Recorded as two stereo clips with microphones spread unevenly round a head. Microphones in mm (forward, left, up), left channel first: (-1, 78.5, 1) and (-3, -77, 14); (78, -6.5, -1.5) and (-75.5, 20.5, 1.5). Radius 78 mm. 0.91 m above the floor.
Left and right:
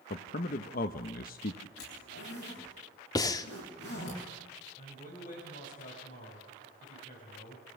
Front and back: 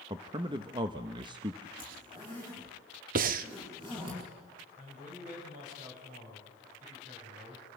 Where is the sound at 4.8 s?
130° left, 6.5 m.